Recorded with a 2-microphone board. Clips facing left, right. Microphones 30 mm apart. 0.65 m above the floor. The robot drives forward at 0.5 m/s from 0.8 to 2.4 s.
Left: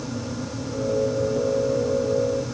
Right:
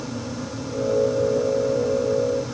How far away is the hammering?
No hammering in this recording.